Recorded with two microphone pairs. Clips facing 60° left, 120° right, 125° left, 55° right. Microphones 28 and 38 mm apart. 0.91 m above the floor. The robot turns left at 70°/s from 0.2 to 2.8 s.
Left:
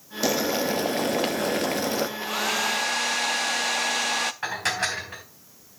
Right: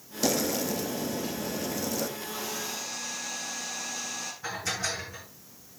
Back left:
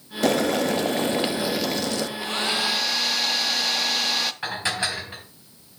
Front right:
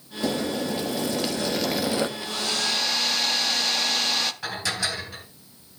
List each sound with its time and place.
0.2 s boiling: 135° left, 1.0 m; by 2.1 s 5° left, 1.0 m
2.2 s a hair dryer: 80° left, 0.7 m; by 4.3 s 35° left, 0.7 m
4.4 s dishes clattering: 65° left, 4 m